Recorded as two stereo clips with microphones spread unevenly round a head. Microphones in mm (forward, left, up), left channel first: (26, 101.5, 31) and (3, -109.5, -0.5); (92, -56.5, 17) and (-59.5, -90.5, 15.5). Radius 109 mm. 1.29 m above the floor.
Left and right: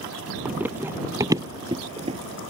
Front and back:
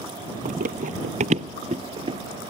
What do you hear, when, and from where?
0.5 s running footsteps: 175° left; by 2.2 s 155° right